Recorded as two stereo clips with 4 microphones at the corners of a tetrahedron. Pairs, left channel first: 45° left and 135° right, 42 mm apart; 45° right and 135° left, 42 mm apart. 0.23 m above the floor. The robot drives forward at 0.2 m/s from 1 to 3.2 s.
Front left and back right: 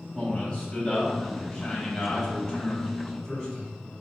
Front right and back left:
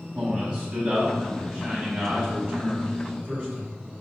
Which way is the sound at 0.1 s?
105° left.